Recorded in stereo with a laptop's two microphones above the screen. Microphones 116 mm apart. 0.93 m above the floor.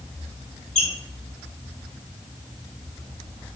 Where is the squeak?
80° left, 2 m.